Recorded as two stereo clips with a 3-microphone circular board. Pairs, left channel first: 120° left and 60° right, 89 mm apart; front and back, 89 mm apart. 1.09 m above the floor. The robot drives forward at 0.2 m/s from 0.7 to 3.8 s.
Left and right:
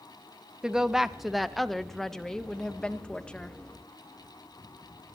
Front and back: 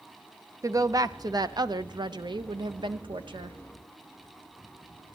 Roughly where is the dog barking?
No dog barking in this recording.